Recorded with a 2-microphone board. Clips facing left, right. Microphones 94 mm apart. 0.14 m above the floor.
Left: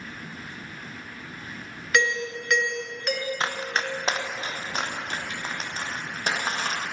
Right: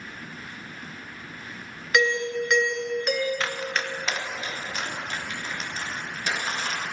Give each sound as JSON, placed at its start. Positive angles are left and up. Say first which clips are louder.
{"t": 1.9, "sound": "a doorbell", "louder": "right 2 dB", "side_deg": 0, "distance_m": 2.5}
{"t": 3.4, "sound": "running footsteps", "louder": "left 1 dB", "side_deg": 25, "distance_m": 1.4}